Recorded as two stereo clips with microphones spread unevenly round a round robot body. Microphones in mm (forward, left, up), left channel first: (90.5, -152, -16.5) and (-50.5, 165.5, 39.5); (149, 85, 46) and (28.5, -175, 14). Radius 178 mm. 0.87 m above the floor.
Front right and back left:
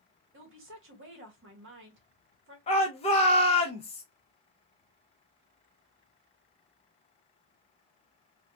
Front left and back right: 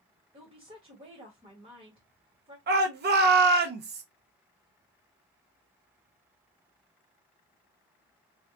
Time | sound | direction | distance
0.3 | a woman speaking | 175° left | 0.8 m
2.7 | a shout | 115° right | 0.5 m